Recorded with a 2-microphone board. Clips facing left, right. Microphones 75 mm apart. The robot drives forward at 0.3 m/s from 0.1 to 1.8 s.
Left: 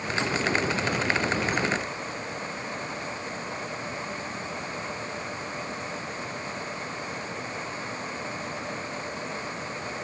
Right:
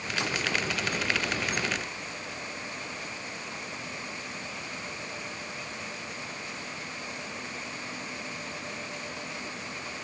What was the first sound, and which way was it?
Only background noise.